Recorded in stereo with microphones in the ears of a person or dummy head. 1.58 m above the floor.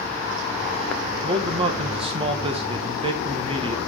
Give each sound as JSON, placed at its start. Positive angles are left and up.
{"t": 1.2, "sound": "a man speaking", "side_deg": -25, "distance_m": 1.4}